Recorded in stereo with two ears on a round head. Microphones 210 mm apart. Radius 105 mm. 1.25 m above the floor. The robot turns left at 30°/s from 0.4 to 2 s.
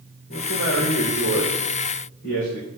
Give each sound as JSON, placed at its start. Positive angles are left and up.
{"t": 0.3, "sound": "a man speaking", "azimuth_deg": 130, "distance_m": 3.5}